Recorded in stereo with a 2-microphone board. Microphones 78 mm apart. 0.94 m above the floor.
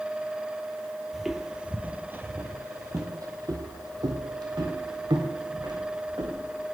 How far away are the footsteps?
About 1.2 m.